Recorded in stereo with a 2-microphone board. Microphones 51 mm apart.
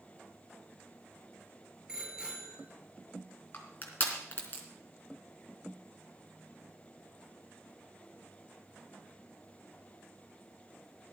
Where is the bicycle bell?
15° right (ahead or behind), 5.5 m.